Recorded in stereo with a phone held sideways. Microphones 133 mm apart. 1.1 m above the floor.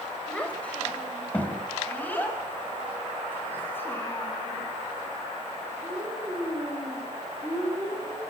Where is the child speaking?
10° left (ahead or behind), 4.5 m; by 8.2 s 20° left (ahead or behind), 10.5 m.